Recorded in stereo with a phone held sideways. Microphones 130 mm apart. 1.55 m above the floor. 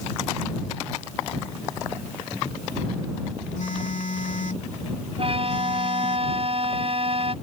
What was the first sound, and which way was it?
A phone buzzing, 75° left (ahead or behind).